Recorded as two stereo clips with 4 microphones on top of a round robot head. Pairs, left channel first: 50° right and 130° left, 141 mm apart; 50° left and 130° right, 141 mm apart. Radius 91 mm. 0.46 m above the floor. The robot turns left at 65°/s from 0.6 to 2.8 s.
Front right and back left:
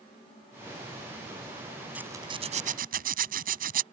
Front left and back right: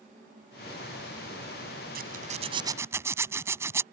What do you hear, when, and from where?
1.9 s a zipper: 150° right; by 3.8 s 155° left